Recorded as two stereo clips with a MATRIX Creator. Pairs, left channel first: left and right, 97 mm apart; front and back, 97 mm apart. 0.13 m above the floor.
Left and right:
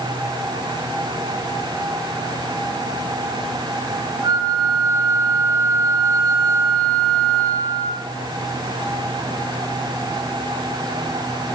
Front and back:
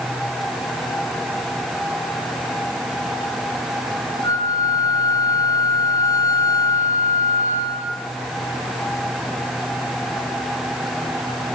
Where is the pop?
I don't hear a pop.